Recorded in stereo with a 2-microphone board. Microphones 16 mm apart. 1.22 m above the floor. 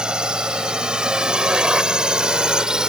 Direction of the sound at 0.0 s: 70° right (ahead or behind).